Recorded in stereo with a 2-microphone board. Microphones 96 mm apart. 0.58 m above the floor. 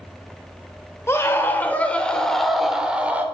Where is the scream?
25° left (ahead or behind), 1.9 m; by 3.2 s 20° right (ahead or behind), 1.6 m.